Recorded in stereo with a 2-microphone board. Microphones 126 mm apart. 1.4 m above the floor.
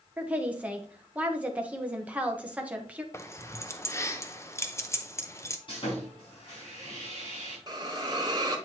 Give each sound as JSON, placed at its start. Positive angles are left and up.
{"t": 0.2, "sound": "a woman speaking", "side_deg": -10, "distance_m": 1.1}
{"t": 3.1, "sound": "keys jangling", "side_deg": 25, "distance_m": 0.6}
{"t": 5.7, "sound": "sawing", "side_deg": 45, "distance_m": 4.0}
{"t": 7.7, "sound": "a hiss", "side_deg": -35, "distance_m": 1.3}